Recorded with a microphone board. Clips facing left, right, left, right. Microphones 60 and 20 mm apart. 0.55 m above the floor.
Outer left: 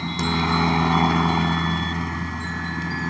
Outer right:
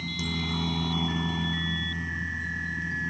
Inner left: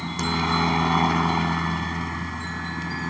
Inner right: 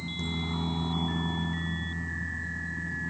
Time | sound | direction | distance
0.0 | a helicopter | 65° left (ahead or behind) | ?